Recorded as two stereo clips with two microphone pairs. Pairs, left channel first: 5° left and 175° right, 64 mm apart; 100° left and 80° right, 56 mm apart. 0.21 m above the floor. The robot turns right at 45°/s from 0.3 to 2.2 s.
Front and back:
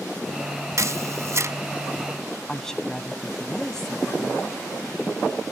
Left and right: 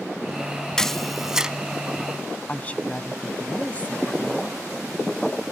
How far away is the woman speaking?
About 1.2 m.